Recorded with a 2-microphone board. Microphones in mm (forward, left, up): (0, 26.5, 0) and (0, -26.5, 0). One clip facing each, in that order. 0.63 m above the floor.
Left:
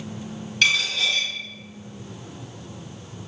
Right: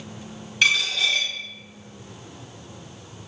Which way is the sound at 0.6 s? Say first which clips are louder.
Even; 10° right (ahead or behind).